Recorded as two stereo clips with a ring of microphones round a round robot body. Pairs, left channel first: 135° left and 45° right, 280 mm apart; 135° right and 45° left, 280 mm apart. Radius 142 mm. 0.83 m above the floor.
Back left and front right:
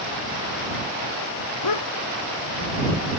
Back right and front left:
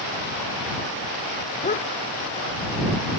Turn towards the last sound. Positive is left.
turn(degrees=180)